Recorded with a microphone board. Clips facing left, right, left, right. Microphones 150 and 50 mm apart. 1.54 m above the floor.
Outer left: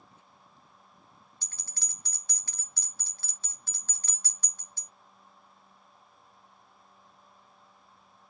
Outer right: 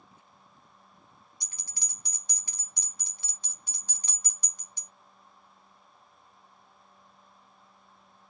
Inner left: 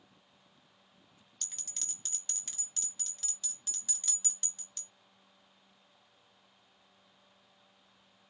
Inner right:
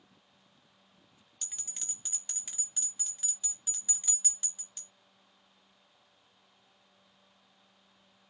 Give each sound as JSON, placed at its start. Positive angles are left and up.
{"t": 1.4, "sound": "a bell", "side_deg": -15, "distance_m": 1.2}